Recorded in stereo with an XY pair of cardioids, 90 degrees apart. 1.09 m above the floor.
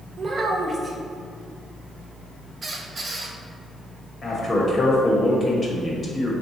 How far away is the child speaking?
About 0.9 m.